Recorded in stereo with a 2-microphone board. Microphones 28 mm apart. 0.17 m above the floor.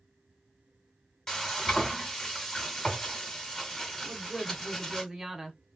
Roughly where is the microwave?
No microwave in this recording.